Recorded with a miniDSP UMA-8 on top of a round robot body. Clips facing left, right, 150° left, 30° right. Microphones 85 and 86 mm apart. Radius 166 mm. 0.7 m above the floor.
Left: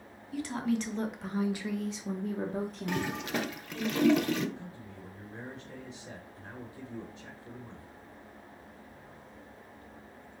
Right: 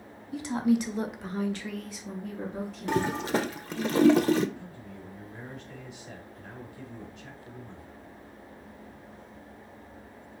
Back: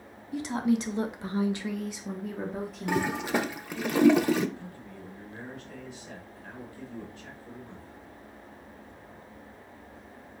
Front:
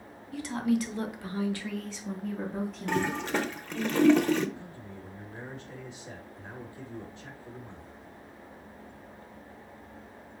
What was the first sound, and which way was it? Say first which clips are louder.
A woman speaking: right 6 dB, back 1 dB; 150° right.